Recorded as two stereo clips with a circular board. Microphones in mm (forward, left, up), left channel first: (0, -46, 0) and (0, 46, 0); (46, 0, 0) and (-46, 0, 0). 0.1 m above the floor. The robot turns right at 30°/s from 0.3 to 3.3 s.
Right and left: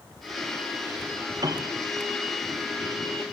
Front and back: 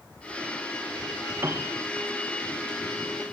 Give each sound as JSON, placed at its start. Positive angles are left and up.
{"t": 1.4, "sound": "a piano", "azimuth_deg": 125, "distance_m": 1.1}